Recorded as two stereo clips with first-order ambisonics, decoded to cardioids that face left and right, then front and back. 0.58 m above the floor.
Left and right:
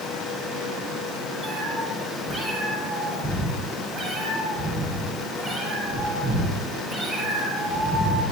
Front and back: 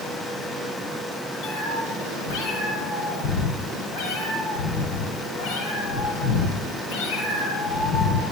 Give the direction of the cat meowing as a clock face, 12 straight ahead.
12 o'clock.